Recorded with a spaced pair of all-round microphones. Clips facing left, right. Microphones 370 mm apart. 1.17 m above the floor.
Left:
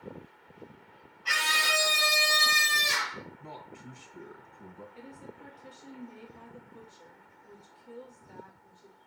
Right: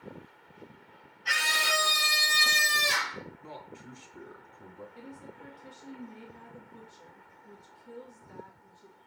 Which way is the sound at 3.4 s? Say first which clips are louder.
Even; 40° left (ahead or behind).